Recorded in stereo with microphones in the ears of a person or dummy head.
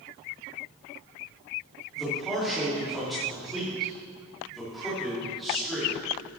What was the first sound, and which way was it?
A man speaking, centre (ahead or behind).